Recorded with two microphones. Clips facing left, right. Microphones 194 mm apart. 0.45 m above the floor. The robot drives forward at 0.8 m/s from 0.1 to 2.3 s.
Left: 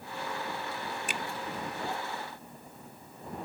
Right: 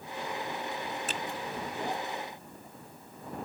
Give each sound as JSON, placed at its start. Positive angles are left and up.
{"t": 1.1, "sound": "a finger snap", "side_deg": 15}